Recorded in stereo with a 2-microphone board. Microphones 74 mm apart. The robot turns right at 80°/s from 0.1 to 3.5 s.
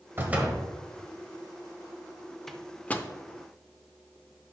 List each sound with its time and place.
0.2 s a door slam: 35° right, 1.5 m; by 0.6 s straight ahead, 1.5 m
2.5 s a microwave: 5° left (ahead or behind), 0.6 m; by 3.1 s 25° left (ahead or behind), 0.6 m